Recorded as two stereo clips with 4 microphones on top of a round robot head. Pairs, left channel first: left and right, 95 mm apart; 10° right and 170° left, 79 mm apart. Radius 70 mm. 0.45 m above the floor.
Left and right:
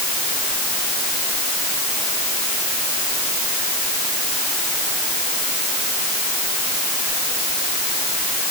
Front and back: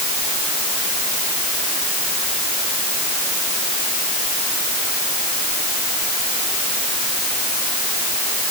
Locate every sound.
Only background noise.